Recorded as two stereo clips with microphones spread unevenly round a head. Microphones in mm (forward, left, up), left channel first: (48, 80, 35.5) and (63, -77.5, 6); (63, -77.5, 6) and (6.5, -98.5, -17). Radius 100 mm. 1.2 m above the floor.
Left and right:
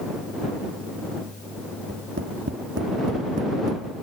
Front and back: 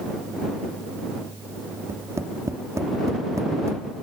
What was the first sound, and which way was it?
Tapping, 115° right.